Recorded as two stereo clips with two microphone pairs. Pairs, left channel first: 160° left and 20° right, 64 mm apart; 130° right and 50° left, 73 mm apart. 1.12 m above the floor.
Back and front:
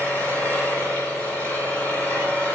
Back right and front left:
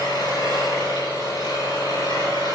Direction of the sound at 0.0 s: 130° right.